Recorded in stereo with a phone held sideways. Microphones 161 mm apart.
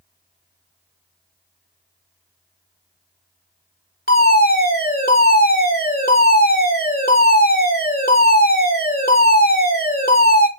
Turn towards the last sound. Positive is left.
turn(degrees=70)  # may be behind; listen again after turning